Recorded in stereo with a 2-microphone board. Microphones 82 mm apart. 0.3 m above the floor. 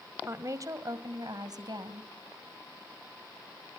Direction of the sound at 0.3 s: 35° right (ahead or behind).